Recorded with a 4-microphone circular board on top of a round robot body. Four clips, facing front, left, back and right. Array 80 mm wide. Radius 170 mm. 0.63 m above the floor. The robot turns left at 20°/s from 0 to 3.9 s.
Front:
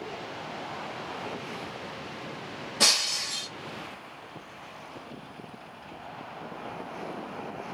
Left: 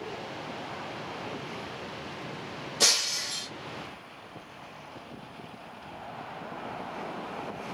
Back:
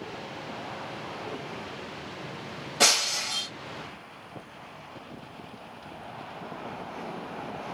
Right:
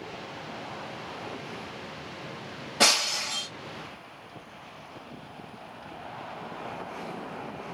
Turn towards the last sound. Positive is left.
turn(degrees=-120)